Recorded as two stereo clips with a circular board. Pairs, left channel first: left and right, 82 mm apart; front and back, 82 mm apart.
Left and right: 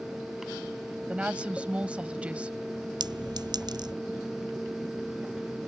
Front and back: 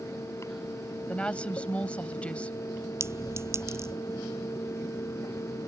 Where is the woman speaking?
45° right.